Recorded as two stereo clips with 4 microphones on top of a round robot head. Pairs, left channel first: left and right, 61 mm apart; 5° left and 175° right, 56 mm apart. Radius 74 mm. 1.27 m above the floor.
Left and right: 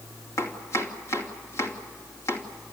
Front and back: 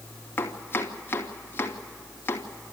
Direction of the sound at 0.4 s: 60° left.